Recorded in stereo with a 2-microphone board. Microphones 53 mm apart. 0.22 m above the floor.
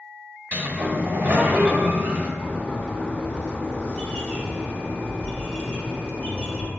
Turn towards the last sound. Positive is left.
turn(degrees=20)  # may be behind; listen again after turning